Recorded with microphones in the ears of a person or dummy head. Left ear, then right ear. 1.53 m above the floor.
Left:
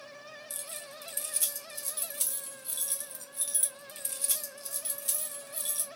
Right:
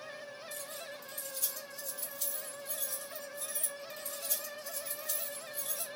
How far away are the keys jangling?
About 0.6 m.